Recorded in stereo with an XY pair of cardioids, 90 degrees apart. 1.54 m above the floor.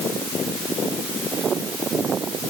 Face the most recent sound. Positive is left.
No sound to turn to.